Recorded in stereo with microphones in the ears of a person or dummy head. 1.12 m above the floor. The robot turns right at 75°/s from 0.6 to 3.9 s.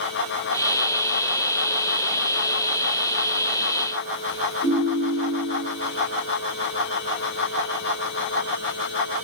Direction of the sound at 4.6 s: 65° left (ahead or behind).